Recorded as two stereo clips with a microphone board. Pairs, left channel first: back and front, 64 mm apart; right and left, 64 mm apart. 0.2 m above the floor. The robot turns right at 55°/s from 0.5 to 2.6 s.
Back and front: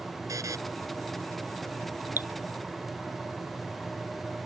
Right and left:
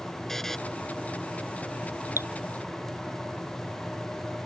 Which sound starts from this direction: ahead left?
Dripping, at 2.2 s.